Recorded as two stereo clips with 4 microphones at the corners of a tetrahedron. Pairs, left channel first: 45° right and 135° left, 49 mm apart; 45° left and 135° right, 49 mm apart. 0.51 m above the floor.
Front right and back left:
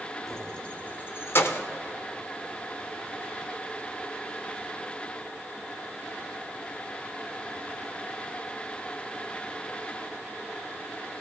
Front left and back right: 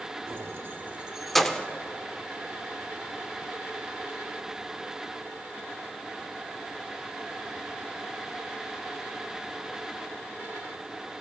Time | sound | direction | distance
0.3 | keys jangling | 125° right | 1.0 m